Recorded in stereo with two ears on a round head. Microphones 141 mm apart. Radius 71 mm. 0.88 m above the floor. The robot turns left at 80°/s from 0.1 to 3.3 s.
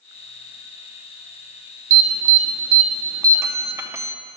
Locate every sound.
1.9 s an alarm: 50° right (ahead or behind), 0.7 m; by 4.2 s 15° right (ahead or behind), 0.7 m